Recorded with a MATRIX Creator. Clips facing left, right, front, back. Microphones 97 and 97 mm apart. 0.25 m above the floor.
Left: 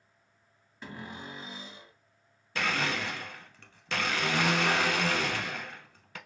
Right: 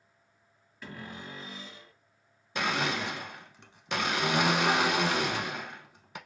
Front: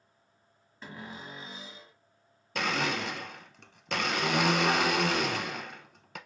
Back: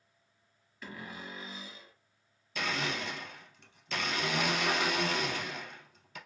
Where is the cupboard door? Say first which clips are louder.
Left 1 dB, front 1 dB; 40° left, 1.5 m.